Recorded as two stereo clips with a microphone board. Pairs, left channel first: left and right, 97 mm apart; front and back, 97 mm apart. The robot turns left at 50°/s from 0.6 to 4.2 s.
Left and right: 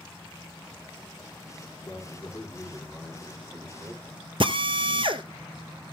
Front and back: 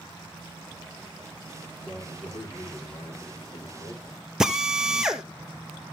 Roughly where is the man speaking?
Ahead left.